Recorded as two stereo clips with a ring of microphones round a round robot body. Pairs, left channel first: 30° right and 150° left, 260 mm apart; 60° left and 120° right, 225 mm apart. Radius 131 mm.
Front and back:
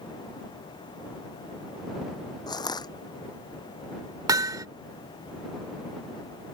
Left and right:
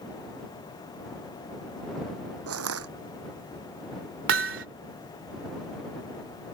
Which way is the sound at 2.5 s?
105° right.